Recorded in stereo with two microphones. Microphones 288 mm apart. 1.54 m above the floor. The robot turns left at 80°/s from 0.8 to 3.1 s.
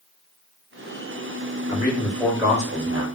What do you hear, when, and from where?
1.7 s a man speaking: 50° left, 1.0 m; by 3.1 s 60° right, 1.0 m